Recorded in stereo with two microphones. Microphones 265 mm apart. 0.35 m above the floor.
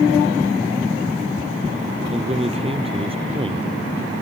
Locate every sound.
2.1 s a man speaking: 25° right (ahead or behind); by 3.7 s 20° right (ahead or behind)